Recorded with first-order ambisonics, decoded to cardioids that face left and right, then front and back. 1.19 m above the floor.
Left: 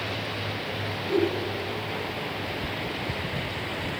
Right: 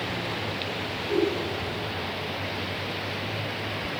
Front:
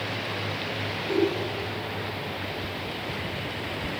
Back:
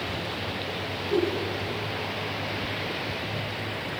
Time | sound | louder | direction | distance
1.1 | a giggle | even, front 1 dB | 10° left | 10 m